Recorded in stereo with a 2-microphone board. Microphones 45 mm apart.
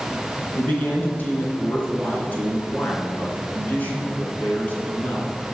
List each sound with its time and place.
0.6 s a man speaking: 35° left (ahead or behind), 3 m